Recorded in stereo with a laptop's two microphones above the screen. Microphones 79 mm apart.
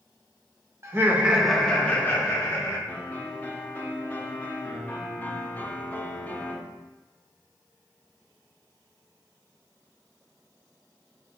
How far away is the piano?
About 0.7 m.